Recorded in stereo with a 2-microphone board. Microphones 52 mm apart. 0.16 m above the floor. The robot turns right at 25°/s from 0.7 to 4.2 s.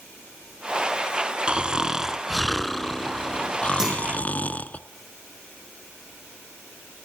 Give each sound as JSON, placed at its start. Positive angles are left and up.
{"t": 1.5, "sound": "snoring", "azimuth_deg": -30, "distance_m": 0.7}
{"t": 3.8, "sound": "a clunk", "side_deg": -5, "distance_m": 6.5}